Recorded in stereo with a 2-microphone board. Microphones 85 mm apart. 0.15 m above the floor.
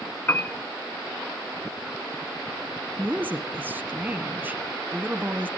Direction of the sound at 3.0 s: 20° right (ahead or behind).